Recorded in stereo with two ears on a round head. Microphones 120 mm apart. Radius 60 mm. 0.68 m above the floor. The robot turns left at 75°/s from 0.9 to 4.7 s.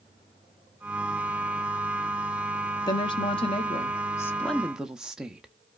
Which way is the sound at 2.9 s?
130° left.